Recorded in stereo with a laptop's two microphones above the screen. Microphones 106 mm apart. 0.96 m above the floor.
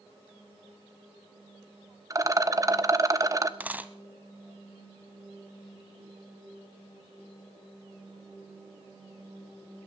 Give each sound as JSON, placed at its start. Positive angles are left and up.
{"t": 2.1, "sound": "a rattle", "side_deg": -30, "distance_m": 0.9}
{"t": 3.6, "sound": "a dropped coin", "side_deg": -15, "distance_m": 0.9}